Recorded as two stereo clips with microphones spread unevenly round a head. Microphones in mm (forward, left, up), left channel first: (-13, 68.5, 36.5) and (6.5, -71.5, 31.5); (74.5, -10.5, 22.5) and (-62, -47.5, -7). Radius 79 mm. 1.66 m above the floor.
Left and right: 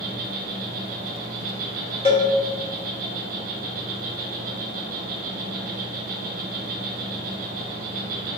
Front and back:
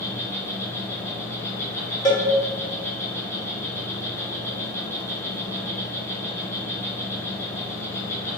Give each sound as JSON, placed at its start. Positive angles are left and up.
{"t": 0.0, "sound": "an insect", "azimuth_deg": -50, "distance_m": 1.0}
{"t": 2.0, "sound": "a cowbell", "azimuth_deg": 60, "distance_m": 1.3}